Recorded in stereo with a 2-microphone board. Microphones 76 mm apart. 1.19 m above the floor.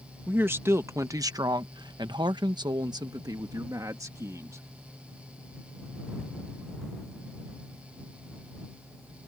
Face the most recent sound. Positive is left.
turn(degrees=-45)  # may be behind; listen again after turning